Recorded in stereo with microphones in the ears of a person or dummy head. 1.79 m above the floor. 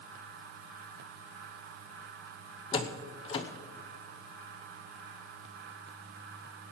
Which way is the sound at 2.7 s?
30° left (ahead or behind).